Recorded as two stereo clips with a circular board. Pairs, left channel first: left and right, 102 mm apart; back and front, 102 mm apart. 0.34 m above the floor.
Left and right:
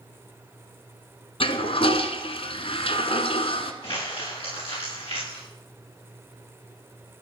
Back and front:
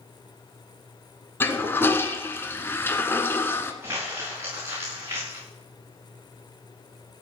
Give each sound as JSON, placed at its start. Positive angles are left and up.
{"t": 1.4, "sound": "a toilet flushing", "azimuth_deg": 110, "distance_m": 1.3}
{"t": 3.8, "sound": "crumpling", "azimuth_deg": 65, "distance_m": 8.0}